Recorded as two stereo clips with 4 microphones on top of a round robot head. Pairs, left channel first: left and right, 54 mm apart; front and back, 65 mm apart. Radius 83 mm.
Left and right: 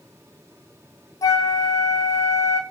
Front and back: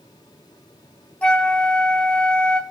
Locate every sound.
1.2 s a flute: 75° left, 1.7 m